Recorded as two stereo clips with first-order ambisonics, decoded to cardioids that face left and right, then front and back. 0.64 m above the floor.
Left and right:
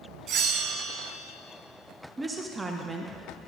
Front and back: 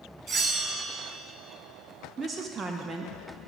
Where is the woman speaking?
150° right, 0.5 m.